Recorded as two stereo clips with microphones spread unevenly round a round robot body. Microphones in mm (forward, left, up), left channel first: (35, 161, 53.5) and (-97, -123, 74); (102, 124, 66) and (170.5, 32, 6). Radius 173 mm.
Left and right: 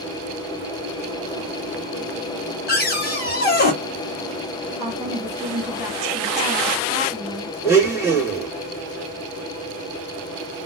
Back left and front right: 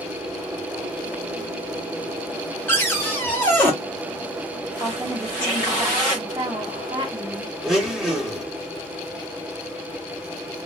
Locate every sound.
2.7 s a cupboard door: 25° left, 1.3 m
4.8 s a woman speaking: 40° right, 1.0 m
7.6 s a blender: 35° right, 1.3 m